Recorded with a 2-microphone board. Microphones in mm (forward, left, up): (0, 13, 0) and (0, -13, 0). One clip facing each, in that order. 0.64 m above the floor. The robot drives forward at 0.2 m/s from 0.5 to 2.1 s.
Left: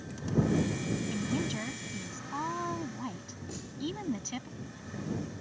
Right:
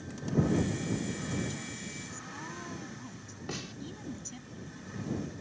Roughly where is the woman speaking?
Left.